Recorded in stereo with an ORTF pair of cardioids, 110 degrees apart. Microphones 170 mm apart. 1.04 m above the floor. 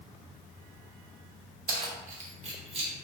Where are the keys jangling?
60° right, 0.9 m; by 2.9 s 35° right, 1.4 m.